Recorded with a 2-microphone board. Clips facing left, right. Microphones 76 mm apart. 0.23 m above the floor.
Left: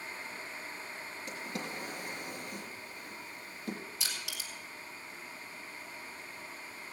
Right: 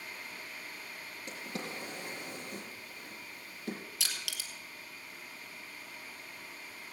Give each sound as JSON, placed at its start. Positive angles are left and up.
{"t": 1.3, "sound": "a drawer", "side_deg": -40, "distance_m": 4.5}
{"t": 4.0, "sound": "crushing", "side_deg": -75, "distance_m": 2.0}